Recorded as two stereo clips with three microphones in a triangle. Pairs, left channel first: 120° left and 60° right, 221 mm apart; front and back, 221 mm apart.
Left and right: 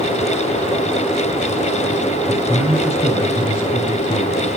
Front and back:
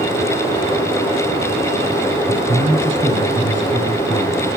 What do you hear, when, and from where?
2.3 s a man speaking: straight behind, 3 m